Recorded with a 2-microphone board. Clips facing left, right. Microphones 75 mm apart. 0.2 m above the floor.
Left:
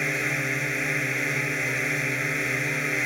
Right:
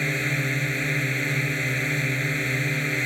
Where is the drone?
5° left (ahead or behind).